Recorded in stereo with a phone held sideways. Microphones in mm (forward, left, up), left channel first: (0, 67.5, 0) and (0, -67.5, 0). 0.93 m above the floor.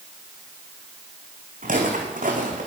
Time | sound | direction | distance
1.6 | footsteps | 70° right (ahead or behind) | 3 m